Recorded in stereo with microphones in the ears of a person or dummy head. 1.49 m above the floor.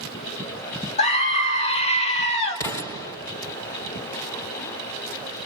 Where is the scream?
35° left (ahead or behind), 1.5 m.